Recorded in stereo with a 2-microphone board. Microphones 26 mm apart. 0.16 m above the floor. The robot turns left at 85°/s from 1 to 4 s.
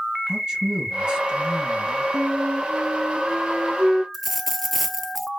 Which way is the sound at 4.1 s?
5° right (ahead or behind).